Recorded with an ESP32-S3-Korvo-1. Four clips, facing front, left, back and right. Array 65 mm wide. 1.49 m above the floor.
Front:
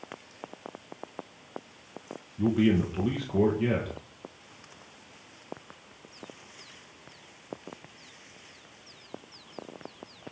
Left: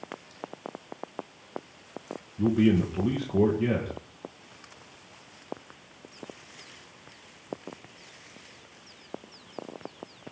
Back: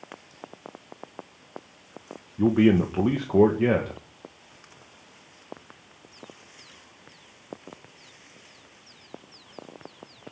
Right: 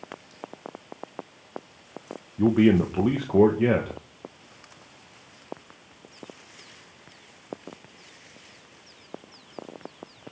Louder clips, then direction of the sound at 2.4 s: Right 4 dB, back 5 dB; 140° right.